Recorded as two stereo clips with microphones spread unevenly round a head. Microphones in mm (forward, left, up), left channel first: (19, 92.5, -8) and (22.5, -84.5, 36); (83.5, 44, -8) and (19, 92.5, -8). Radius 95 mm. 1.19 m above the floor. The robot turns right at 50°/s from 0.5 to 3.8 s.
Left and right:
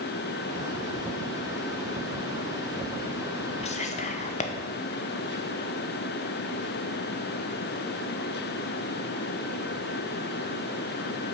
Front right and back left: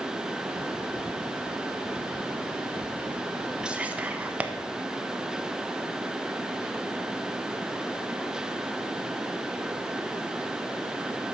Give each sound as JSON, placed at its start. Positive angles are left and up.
{"t": 3.6, "sound": "whispering", "azimuth_deg": 65, "distance_m": 1.0}